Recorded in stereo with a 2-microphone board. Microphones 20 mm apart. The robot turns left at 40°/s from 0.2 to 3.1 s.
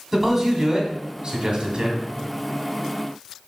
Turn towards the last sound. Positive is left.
turn(degrees=-120)